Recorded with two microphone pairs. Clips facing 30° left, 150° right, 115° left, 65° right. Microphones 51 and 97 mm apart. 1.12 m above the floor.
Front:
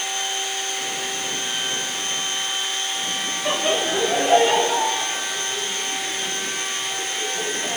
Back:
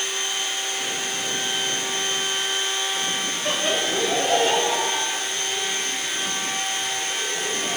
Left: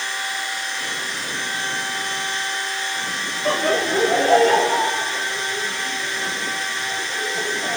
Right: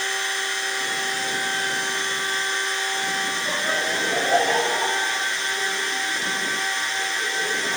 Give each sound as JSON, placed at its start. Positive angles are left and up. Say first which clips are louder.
{"t": 3.5, "sound": "laughter", "louder": "front 3 dB, left 10 dB", "azimuth_deg": 105, "distance_m": 3.0}